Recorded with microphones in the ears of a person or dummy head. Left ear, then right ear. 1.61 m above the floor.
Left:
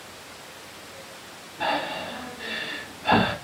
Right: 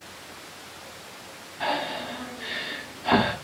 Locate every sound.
1.6 s breathing: 5° right (ahead or behind), 1.4 m